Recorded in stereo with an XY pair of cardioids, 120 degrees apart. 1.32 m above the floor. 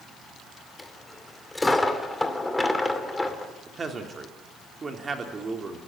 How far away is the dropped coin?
About 2 m.